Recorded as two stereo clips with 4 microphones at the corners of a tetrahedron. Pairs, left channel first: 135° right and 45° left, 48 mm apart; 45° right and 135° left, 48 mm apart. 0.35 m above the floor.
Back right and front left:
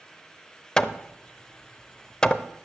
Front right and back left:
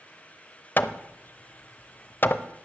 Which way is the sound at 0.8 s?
70° right.